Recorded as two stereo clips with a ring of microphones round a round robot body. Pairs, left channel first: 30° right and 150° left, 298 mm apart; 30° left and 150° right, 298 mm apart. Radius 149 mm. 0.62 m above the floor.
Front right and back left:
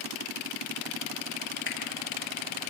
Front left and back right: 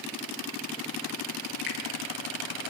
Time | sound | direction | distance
1.7 | a finger snap | 25° right | 7 m